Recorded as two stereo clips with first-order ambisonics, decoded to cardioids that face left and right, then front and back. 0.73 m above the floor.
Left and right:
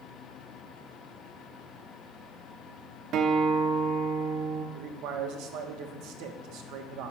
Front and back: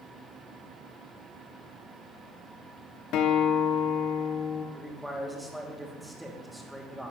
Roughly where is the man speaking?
Right.